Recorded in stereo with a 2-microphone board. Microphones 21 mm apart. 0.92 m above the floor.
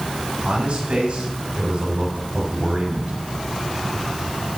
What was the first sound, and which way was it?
A man speaking, 55° right (ahead or behind).